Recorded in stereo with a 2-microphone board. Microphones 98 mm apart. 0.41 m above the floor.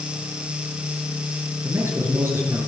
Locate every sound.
1.6 s a man speaking: 25° right (ahead or behind), 8 m